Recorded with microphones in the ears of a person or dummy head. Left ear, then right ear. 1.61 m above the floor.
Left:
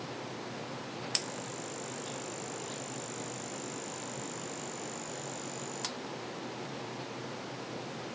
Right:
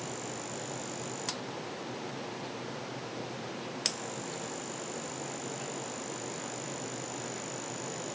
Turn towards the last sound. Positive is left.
No sound to turn to.